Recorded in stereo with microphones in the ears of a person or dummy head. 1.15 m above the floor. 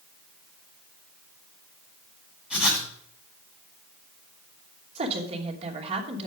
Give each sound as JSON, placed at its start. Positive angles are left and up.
{"t": 2.5, "sound": "writing", "side_deg": -5, "distance_m": 6.5}
{"t": 5.0, "sound": "a woman speaking", "side_deg": -35, "distance_m": 2.5}